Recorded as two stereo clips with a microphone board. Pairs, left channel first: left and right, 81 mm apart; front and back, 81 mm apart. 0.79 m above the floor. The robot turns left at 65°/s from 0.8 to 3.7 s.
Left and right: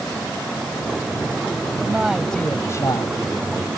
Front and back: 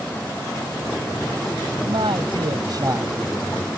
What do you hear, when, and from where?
1.9 s a man speaking: 160° right; by 3.7 s 85° left